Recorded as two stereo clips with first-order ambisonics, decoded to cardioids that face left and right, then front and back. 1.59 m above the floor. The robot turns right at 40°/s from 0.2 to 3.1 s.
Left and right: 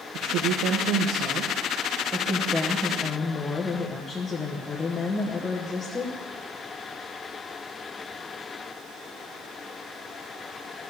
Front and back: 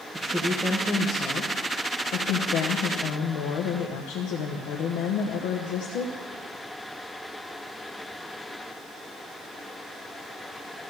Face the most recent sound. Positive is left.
turn(degrees=10)